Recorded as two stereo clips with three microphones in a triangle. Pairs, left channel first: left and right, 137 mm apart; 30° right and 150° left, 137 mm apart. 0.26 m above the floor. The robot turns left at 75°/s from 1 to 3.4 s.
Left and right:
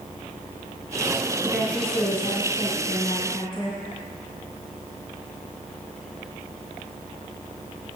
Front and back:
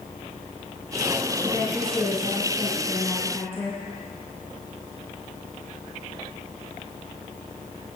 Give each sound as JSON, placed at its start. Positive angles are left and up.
{"t": 1.4, "sound": "a woman speaking", "azimuth_deg": -175, "distance_m": 2.5}